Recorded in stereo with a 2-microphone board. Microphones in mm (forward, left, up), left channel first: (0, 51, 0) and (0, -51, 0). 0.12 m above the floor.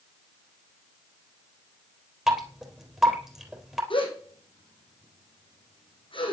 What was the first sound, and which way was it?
Dripping, 5° right (ahead or behind).